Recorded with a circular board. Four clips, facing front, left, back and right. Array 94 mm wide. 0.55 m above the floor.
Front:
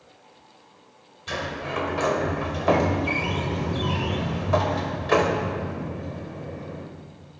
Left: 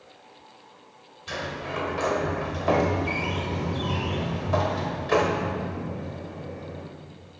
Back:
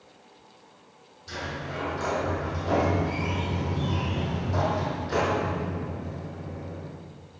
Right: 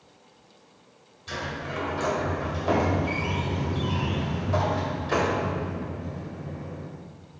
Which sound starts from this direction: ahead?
A sliding door, at 1.3 s.